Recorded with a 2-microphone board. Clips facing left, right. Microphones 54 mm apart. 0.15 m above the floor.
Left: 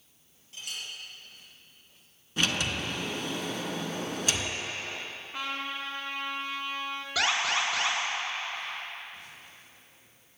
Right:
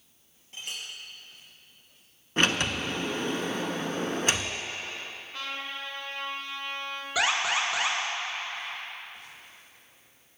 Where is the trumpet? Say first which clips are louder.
Left 2 dB; 20° left (ahead or behind), 1.1 m.